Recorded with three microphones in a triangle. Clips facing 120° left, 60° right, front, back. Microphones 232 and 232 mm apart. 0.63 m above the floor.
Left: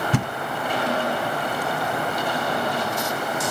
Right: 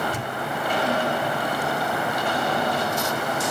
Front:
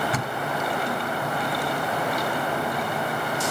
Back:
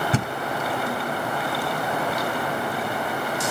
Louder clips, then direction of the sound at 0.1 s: Left 7 dB, back 4 dB; 120° left.